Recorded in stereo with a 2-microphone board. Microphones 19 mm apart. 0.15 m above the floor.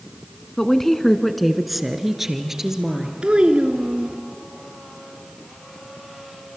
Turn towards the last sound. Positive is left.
turn(degrees=-55)  # may be behind; listen again after turning